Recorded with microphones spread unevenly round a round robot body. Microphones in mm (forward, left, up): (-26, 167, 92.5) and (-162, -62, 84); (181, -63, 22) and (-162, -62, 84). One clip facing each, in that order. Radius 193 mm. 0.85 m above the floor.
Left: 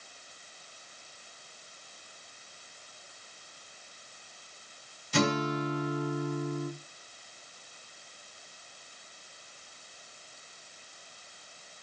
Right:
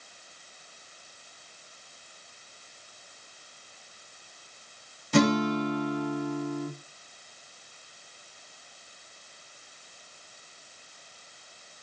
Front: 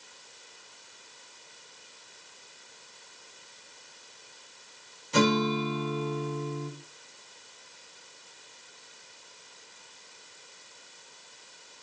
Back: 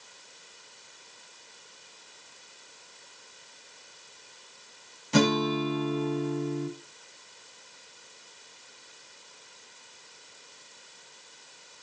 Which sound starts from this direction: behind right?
A guitar, at 5.1 s.